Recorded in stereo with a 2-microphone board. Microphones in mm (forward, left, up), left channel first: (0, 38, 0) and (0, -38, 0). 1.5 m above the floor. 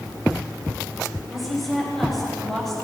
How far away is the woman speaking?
About 6.5 m.